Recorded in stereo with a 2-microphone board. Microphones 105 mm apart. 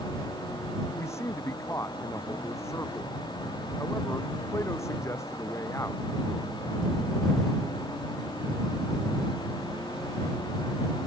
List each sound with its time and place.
0.9 s a man speaking: 25° left (ahead or behind)